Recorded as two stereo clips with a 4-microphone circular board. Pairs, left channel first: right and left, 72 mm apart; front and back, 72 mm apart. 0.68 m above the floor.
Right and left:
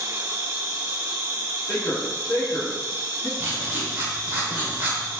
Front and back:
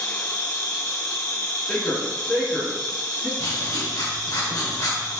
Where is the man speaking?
75° right, 1.4 m.